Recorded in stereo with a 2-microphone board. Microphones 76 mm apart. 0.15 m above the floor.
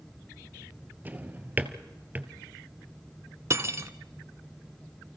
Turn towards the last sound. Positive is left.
turn(degrees=-35)  # may be behind; listen again after turning